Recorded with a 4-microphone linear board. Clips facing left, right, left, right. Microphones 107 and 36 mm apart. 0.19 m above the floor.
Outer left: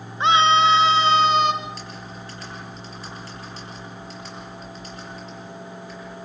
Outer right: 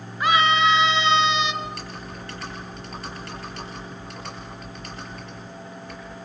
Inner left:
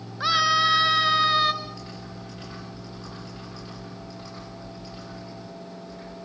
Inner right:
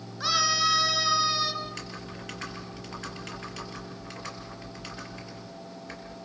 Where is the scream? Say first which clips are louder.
Outer left 3 dB, inner left 5 dB; 25° left (ahead or behind), 2 m; by 1.5 s 45° left (ahead or behind), 2 m.